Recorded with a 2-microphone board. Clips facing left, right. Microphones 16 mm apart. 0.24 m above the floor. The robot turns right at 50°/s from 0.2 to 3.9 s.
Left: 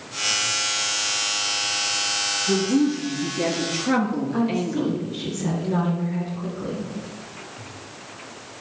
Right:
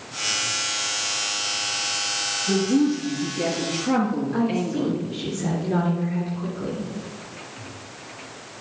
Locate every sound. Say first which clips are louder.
2.5 s a woman speaking: right 1 dB; 20° right, 4 m; by 4.9 s 50° left, 4 m
4.3 s a woman speaking: left 1 dB; 5° right (ahead or behind), 4 m